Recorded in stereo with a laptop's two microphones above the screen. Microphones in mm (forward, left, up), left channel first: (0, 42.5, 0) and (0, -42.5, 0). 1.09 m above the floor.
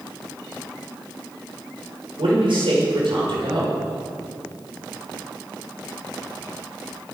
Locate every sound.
2.2 s a man speaking: 80° right, 5 m